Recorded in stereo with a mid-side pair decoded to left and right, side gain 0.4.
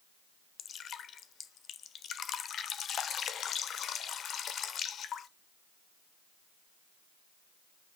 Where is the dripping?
65° left, 1.0 m.